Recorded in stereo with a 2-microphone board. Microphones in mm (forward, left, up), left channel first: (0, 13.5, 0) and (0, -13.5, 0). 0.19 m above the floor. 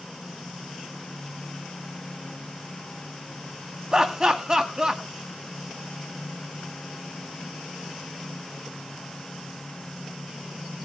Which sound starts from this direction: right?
Laughter, at 3.9 s.